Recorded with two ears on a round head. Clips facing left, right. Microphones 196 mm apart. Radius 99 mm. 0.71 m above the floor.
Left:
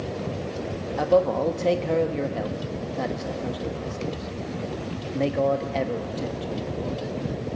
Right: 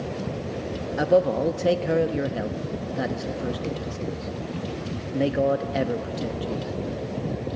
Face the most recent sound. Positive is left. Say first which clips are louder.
# even
turn(degrees=-10)  # may be behind; listen again after turning